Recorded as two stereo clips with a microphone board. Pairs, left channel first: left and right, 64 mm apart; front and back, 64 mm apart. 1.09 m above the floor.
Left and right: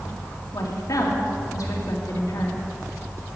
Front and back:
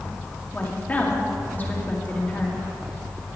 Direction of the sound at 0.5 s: 65° left.